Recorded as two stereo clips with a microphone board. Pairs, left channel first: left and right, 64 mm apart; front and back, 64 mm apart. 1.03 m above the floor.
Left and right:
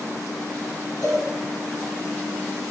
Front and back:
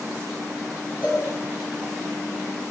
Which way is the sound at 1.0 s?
125° right.